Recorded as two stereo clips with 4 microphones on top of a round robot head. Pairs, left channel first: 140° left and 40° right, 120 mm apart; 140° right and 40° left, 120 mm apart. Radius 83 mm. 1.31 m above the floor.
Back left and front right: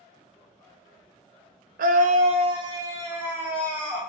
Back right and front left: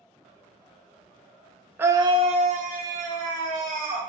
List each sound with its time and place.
1.8 s a scream: 40° right, 0.7 m; by 4.0 s 45° left, 2 m